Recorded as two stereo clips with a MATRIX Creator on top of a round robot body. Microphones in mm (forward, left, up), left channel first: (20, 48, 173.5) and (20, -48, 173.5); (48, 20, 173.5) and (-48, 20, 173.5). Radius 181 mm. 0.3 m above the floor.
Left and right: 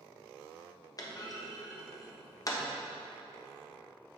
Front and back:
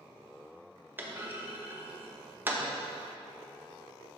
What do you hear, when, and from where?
1.0 s a clunk: 120° left, 1.3 m